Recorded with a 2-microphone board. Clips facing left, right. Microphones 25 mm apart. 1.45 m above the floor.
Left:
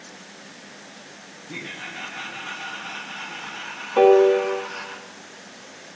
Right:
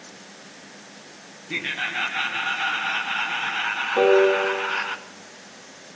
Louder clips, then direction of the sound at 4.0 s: Left 3 dB; 10° left (ahead or behind).